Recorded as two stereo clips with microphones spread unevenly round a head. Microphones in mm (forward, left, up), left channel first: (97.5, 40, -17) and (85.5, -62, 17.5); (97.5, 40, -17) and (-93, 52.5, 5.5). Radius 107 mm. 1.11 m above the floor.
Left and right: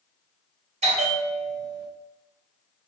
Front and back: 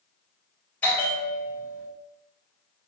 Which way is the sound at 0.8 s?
85° right.